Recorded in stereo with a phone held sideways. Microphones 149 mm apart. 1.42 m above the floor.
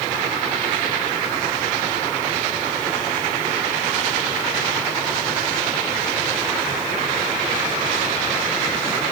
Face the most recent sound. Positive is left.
No sound to turn to.